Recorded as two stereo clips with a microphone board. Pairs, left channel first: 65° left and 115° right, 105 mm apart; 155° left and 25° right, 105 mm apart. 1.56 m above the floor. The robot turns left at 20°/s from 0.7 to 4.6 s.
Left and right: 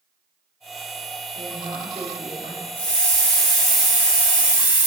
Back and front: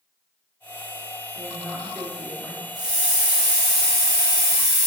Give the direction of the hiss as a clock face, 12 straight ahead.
12 o'clock.